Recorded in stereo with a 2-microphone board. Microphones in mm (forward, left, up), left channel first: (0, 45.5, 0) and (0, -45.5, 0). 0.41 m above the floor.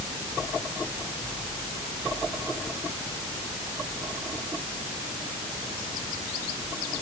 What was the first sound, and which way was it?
Only background noise.